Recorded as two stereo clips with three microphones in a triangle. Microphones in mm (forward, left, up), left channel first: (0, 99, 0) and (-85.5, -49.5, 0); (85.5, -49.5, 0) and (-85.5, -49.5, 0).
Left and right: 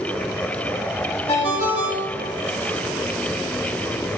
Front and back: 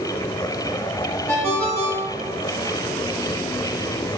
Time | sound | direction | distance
1.3 | a ringtone | 70° left | 0.8 m